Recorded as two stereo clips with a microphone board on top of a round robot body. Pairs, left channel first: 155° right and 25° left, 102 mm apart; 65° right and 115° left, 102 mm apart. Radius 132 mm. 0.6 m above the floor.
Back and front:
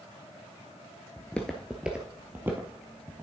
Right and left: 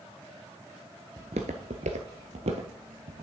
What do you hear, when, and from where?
1.2 s footsteps: 140° left, 0.6 m; by 3.2 s 90° left, 1.5 m